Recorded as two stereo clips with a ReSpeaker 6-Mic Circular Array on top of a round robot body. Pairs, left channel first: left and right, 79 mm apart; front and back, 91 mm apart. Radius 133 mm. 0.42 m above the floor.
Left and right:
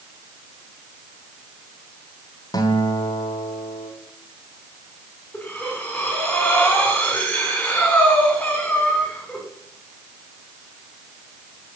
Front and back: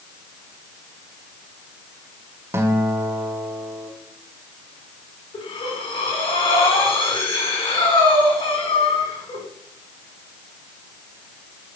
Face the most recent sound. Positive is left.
turn(degrees=15)